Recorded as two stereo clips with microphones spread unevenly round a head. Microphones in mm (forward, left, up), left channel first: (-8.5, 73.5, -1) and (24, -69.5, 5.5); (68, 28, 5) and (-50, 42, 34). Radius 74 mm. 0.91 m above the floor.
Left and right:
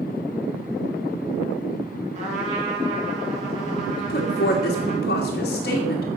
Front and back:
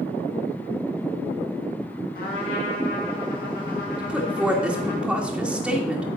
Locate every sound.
2.1 s a trumpet: 30° right, 4 m
4.0 s a woman speaking: 85° left, 1.9 m